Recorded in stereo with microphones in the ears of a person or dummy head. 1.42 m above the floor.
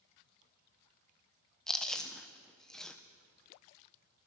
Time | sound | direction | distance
1.7 | chewing | 5° left (ahead or behind) | 1.0 m